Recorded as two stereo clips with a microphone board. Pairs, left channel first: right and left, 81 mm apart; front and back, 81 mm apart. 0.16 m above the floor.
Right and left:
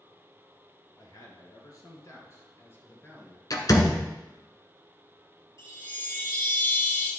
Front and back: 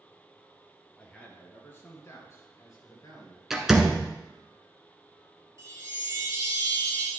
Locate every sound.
1.0 s a man speaking: 75° right, 3 m; by 3.4 s 20° right, 3.5 m
3.5 s a door slam: 95° right, 1.2 m
5.6 s a chime: 135° right, 4 m